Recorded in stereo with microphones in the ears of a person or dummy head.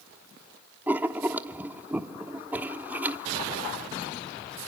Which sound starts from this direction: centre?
Writing, at 0.9 s.